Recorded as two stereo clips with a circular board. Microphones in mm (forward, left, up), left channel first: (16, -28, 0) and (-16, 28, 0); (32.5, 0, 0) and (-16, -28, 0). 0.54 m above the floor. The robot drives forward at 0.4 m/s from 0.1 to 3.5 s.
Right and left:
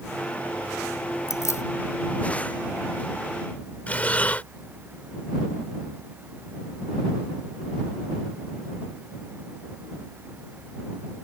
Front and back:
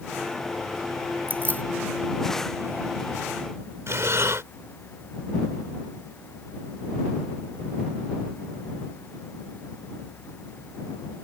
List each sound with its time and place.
1.3 s keys jangling: 95° right; by 1.6 s 100° right
3.9 s breathing: 125° right